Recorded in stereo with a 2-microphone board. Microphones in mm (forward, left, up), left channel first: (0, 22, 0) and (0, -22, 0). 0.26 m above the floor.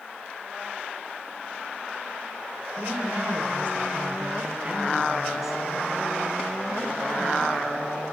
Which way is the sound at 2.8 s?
65° right (ahead or behind).